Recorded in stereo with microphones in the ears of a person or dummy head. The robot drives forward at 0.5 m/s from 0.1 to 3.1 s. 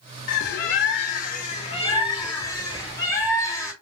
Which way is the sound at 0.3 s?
55° left (ahead or behind).